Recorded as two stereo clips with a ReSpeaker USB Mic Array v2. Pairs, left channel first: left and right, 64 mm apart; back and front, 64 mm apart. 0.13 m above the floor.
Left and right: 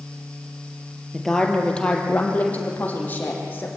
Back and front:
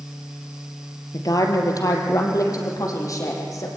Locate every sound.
1.1 s a woman speaking: 175° left, 2.5 m; by 3.7 s 145° left, 5.5 m